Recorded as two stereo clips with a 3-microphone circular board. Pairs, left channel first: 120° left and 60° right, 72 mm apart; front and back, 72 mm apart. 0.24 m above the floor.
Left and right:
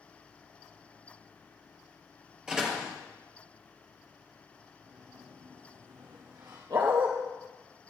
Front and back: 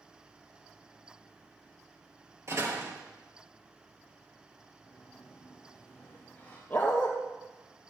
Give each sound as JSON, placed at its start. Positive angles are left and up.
{"t": 2.5, "sound": "a door slam", "azimuth_deg": -140, "distance_m": 3.0}
{"t": 4.8, "sound": "a sliding door", "azimuth_deg": -70, "distance_m": 5.0}
{"t": 6.7, "sound": "a dog barking", "azimuth_deg": -70, "distance_m": 3.0}